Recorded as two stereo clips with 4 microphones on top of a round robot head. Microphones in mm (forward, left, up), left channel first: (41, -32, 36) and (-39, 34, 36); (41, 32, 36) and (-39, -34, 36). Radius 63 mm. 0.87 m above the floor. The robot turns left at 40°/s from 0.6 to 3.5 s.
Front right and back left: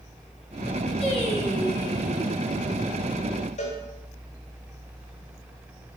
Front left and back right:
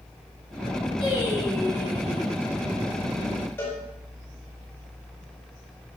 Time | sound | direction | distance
1.0 | singing | straight ahead | 5 m
3.6 | a cowbell | 30° right | 4 m